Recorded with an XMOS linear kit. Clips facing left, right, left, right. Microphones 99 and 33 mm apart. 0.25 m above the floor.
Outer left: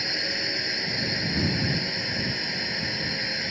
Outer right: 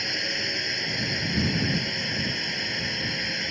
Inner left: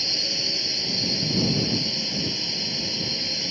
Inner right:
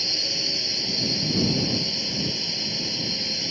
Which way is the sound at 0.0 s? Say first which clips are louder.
Even, even; 5° left (ahead or behind).